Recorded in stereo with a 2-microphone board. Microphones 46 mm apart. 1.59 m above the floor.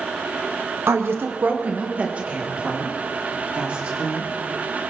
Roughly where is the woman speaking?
Right.